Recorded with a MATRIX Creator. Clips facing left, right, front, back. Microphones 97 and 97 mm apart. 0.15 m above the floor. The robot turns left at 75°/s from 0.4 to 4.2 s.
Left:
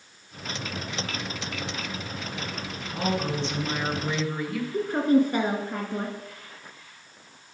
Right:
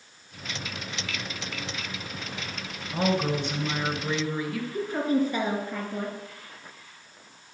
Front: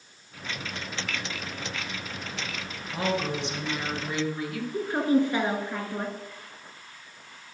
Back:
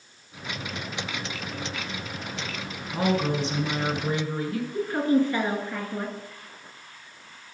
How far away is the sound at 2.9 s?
About 2.0 m.